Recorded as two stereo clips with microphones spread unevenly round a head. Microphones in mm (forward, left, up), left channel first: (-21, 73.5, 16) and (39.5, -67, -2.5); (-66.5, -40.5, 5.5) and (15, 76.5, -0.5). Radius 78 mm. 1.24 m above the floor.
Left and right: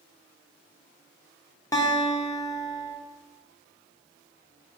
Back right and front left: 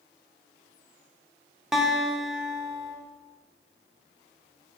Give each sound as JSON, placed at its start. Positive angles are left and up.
{"t": 1.7, "sound": "a guitar", "azimuth_deg": 145, "distance_m": 0.5}